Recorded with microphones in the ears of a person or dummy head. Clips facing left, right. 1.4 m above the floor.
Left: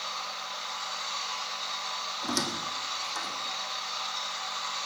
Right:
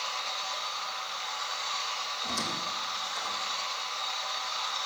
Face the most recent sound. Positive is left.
turn(degrees=75)  # may be behind; listen again after turning